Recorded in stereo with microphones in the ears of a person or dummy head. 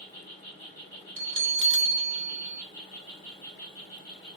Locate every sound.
0.0 s an insect: 25° left (ahead or behind), 2 m
1.2 s a bell: 55° right (ahead or behind), 0.6 m